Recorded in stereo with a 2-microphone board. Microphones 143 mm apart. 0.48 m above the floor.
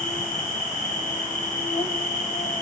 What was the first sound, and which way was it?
An insect, 70° left (ahead or behind).